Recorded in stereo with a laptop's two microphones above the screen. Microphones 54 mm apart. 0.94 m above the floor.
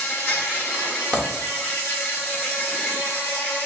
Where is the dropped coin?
20° left (ahead or behind), 0.9 m.